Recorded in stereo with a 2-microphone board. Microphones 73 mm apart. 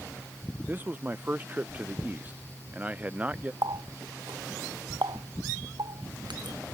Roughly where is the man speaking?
Right.